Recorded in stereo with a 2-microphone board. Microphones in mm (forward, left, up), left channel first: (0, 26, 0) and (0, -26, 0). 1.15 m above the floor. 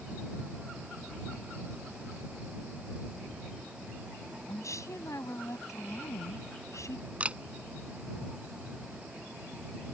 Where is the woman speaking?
75° left (ahead or behind).